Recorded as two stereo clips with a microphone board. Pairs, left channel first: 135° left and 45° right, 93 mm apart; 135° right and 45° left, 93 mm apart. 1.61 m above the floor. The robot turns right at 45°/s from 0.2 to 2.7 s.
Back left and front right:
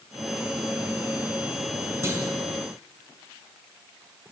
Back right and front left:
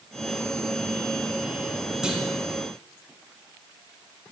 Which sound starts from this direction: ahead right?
A clunk, at 2.0 s.